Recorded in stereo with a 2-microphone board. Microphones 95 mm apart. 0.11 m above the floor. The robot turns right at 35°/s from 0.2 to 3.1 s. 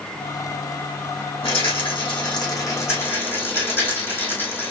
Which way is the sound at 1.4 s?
95° left.